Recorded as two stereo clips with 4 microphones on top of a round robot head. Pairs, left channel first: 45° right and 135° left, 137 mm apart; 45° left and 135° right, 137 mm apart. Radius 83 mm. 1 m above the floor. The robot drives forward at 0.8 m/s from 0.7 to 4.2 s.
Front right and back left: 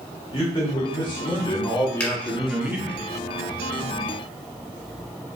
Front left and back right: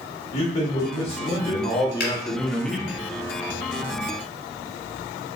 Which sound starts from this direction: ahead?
A man speaking, at 0.3 s.